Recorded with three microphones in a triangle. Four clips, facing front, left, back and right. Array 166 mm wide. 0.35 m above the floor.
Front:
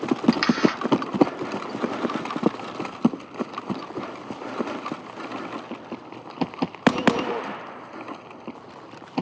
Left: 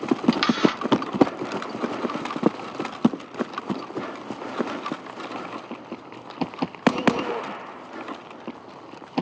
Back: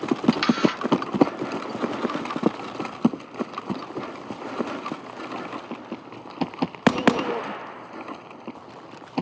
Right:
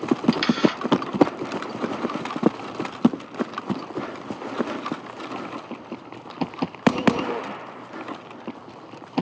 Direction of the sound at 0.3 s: 55° left.